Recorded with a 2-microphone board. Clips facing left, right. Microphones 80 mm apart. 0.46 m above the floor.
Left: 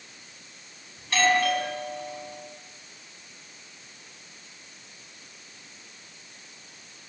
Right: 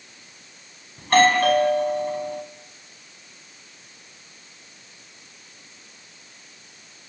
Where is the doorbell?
50° right (ahead or behind), 4.5 m.